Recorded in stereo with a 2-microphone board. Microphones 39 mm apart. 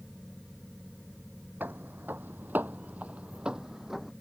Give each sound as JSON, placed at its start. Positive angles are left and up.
{"t": 1.6, "sound": "footsteps", "side_deg": -65}